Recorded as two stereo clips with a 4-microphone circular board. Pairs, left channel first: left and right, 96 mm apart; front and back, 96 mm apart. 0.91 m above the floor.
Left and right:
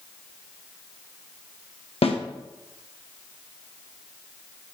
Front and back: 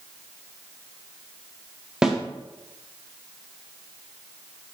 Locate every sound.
2.0 s a snare drum: 95° left, 0.9 m